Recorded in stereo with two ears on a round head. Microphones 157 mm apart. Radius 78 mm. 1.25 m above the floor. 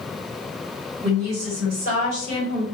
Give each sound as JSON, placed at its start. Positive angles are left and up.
{"t": 1.0, "sound": "a woman speaking", "side_deg": -70, "distance_m": 1.9}